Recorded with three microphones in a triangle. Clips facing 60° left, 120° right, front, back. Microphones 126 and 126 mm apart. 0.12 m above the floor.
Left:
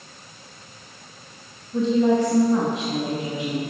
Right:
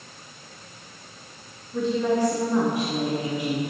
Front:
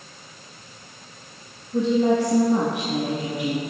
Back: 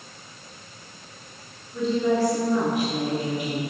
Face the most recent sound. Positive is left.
turn(degrees=-5)